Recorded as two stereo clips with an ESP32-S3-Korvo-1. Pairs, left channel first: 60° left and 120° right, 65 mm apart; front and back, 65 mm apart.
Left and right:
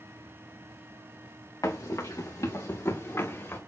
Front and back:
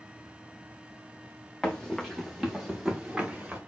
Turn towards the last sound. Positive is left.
turn(degrees=110)